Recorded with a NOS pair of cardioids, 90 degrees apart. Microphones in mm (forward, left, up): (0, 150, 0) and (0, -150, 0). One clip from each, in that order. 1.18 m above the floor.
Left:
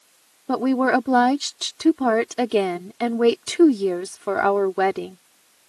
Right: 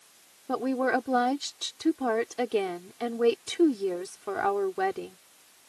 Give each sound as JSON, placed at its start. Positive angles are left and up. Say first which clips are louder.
{"t": 0.5, "sound": "a woman speaking", "louder": "left 7 dB", "azimuth_deg": 55}